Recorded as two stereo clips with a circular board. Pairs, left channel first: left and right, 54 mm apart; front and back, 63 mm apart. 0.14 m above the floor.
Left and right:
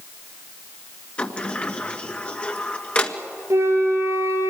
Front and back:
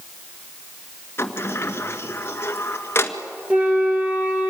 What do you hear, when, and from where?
1.2 s a sliding door: 30° left, 1.6 m
3.5 s a flute: 110° right, 4.5 m